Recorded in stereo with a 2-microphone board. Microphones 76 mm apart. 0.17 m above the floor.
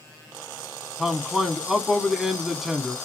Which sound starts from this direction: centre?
A man speaking, at 1.0 s.